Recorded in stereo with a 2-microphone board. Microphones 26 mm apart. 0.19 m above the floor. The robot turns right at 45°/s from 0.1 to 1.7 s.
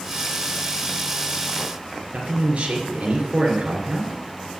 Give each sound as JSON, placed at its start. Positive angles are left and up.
{"t": 2.1, "sound": "a man speaking", "side_deg": -50, "distance_m": 2.5}